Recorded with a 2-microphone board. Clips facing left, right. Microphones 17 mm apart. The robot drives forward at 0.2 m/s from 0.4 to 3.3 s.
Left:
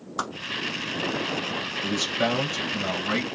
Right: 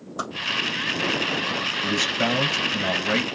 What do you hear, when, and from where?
0.2 s a whoosh: 25° left (ahead or behind), 1.5 m
1.8 s a man speaking: 15° right (ahead or behind), 1.6 m